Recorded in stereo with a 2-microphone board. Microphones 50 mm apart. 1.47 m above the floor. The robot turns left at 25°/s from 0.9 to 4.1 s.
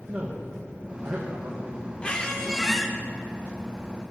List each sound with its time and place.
0.1 s a man speaking: 35° right (ahead or behind), 1.3 m; by 1.9 s 60° right (ahead or behind), 1.3 m
2.0 s a squeak: 25° left (ahead or behind), 0.7 m; by 2.9 s 5° left (ahead or behind), 0.7 m